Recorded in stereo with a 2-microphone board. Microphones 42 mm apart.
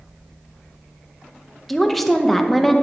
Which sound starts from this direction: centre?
A woman speaking, at 1.7 s.